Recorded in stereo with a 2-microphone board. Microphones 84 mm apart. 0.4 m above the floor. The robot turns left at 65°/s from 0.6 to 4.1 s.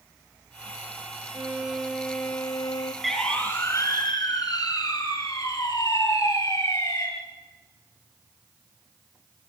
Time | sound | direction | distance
1.3 | a violin | 140° right | 2 m
3.0 | a siren | centre (ahead or behind) | 5 m